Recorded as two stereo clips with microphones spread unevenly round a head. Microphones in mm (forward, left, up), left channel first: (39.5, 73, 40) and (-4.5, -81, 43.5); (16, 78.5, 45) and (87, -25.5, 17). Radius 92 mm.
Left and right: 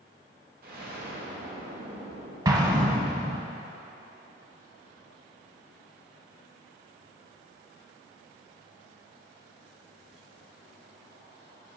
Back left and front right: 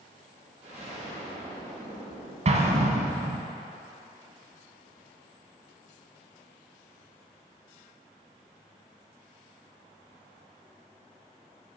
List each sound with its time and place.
0.6 s an explosion: 135° right, 1.4 m
2.5 s an explosion: 40° right, 0.9 m